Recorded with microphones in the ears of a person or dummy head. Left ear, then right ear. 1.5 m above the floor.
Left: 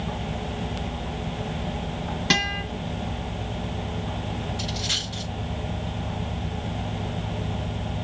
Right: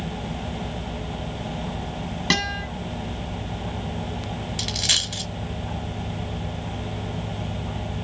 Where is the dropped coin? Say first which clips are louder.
Right 6 dB; 35° right (ahead or behind), 1.7 m.